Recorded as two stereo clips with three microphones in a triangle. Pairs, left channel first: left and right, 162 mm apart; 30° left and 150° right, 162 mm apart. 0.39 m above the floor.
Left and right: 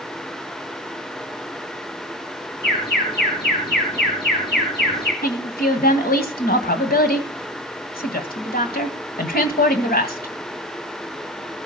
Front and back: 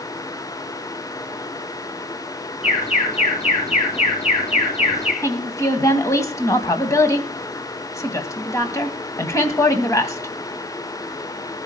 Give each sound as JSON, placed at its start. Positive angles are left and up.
{"t": 2.6, "sound": "an alarm", "azimuth_deg": 80, "distance_m": 9.0}
{"t": 5.2, "sound": "a woman speaking", "azimuth_deg": 100, "distance_m": 2.0}